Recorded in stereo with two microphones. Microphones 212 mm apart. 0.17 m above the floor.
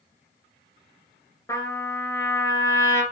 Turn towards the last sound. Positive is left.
turn(degrees=15)  # may be behind; listen again after turning